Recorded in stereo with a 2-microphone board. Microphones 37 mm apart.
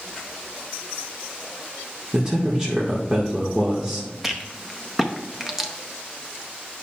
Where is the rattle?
10° right (ahead or behind), 0.8 m.